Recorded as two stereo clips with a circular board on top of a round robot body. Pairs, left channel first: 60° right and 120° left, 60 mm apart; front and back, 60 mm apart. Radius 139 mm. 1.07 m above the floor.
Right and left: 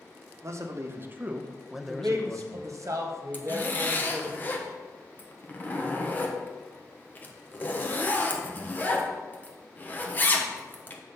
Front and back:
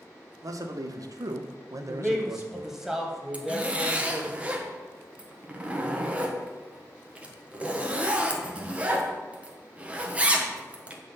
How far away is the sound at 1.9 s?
About 1.1 m.